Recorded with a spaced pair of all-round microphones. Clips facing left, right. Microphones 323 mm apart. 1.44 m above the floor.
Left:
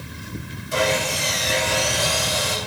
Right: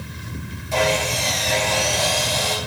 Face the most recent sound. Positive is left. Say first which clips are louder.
# right 1 dB
turn(degrees=20)  # may be behind; listen again after turning